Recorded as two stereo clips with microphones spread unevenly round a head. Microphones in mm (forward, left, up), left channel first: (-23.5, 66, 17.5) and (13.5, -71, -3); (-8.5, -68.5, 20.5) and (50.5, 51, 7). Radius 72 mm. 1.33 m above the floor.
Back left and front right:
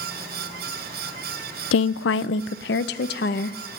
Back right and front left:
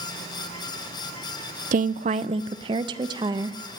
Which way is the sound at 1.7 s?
100° left.